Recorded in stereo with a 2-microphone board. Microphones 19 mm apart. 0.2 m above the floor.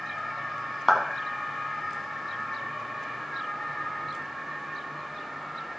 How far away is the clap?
About 1.6 m.